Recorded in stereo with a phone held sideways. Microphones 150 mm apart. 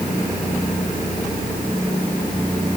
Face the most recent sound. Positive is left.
No sound to turn to.